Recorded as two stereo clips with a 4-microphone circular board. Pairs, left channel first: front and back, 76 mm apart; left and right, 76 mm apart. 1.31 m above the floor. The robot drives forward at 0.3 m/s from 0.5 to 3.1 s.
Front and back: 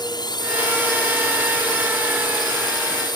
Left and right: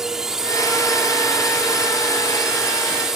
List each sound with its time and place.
0.0 s a drone: 5° right